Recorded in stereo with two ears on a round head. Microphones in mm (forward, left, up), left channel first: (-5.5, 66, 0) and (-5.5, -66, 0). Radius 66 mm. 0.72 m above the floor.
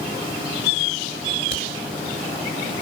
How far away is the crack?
About 7 m.